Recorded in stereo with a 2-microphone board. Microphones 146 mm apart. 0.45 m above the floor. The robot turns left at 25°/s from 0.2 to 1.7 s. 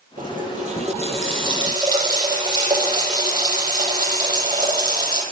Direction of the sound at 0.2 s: 115° right.